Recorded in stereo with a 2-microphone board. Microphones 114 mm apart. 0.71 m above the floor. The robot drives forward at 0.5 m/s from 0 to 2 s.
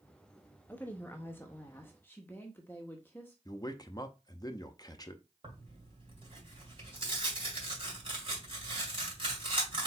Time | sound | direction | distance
0.7 | a woman speaking | 15° left (ahead or behind) | 0.9 m
3.5 | a man speaking | 30° left (ahead or behind) | 0.6 m
5.4 | tearing paper | 45° right (ahead or behind) | 2.5 m